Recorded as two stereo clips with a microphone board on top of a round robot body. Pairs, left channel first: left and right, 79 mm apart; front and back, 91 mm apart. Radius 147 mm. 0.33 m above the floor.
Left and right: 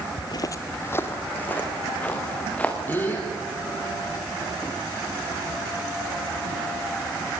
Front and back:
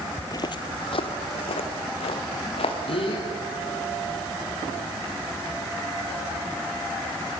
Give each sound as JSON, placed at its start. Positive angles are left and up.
{"t": 0.2, "sound": "footsteps", "azimuth_deg": 70, "distance_m": 0.6}
{"t": 2.9, "sound": "a gasp", "azimuth_deg": 25, "distance_m": 4.5}